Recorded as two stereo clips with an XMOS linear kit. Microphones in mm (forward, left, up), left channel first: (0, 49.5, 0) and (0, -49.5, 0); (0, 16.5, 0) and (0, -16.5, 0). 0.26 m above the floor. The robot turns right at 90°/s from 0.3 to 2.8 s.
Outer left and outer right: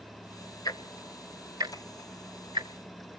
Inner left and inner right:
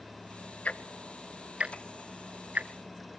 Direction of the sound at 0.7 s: 45° left (ahead or behind).